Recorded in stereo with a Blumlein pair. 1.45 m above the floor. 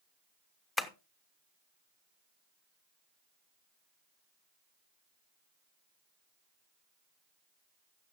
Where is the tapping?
15° left, 0.9 m.